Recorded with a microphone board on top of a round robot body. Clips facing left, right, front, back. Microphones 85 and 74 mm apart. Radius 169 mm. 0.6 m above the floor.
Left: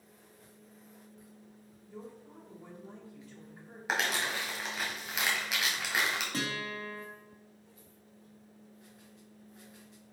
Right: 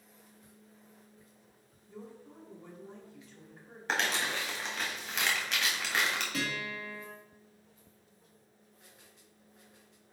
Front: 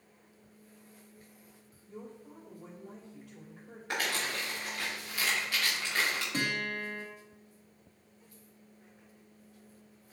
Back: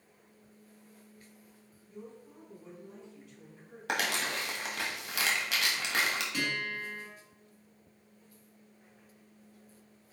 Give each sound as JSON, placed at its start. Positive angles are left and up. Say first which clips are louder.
{"t": 1.9, "sound": "a woman speaking", "louder": "left 1 dB, front 1 dB", "azimuth_deg": 20, "distance_m": 3.0}
{"t": 3.9, "sound": "crumpling", "louder": "even, back 2 dB", "azimuth_deg": 175, "distance_m": 1.7}
{"t": 6.3, "sound": "a guitar", "louder": "even, front 1 dB", "azimuth_deg": 45, "distance_m": 2.5}